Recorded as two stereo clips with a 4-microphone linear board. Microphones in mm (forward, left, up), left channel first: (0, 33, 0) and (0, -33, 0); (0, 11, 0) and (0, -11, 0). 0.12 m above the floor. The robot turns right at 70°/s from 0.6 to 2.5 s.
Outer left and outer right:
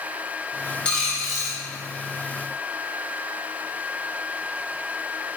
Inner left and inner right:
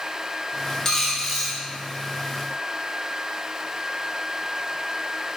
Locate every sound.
0.8 s a dropped coin: 150° left, 0.7 m; by 1.6 s 160° right, 0.7 m